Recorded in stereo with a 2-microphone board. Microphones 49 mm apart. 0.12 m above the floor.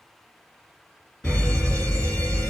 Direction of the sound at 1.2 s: 20° left (ahead or behind).